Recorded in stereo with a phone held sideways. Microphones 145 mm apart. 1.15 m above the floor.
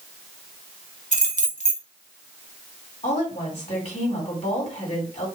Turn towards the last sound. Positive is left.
turn(degrees=50)  # may be behind; listen again after turning